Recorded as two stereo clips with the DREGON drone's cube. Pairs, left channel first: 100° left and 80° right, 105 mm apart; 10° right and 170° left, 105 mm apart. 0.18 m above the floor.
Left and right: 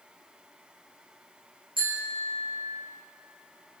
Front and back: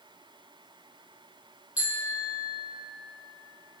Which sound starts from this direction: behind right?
A bicycle bell, at 1.8 s.